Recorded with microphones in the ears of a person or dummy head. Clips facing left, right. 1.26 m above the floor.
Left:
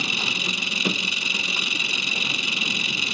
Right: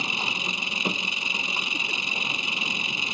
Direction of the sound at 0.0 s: 20° left (ahead or behind).